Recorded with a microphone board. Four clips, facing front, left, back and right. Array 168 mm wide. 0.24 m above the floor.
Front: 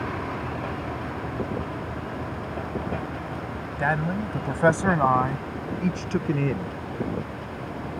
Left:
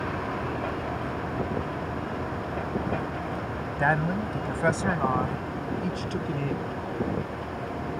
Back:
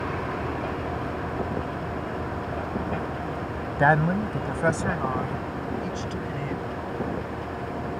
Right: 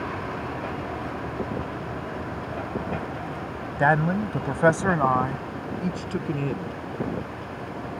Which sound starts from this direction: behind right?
A man speaking, at 3.8 s.